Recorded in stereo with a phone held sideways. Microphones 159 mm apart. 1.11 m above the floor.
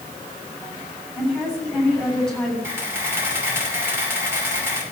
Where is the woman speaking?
5° left (ahead or behind), 8.5 m.